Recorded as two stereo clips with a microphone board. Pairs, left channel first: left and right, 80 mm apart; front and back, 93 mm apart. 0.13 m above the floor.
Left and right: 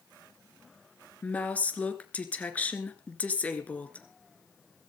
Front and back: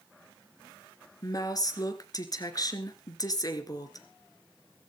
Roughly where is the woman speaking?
Ahead left.